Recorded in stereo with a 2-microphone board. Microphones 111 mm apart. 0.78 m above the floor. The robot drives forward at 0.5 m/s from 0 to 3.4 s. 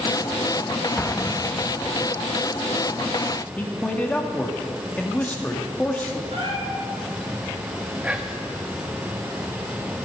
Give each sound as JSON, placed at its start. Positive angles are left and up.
{"t": 1.0, "sound": "an explosion", "side_deg": 15, "distance_m": 0.6}
{"t": 3.6, "sound": "a man speaking", "side_deg": 15, "distance_m": 1.6}
{"t": 6.3, "sound": "a cat meowing", "side_deg": -60, "distance_m": 5.5}
{"t": 8.0, "sound": "whispering", "side_deg": -10, "distance_m": 1.4}